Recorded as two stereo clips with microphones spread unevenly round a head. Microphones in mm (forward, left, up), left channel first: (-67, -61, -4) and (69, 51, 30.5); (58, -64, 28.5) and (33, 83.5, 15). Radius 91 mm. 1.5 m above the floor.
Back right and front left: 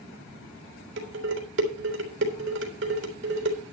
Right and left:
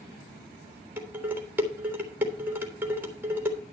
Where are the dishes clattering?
20° left, 3.5 m.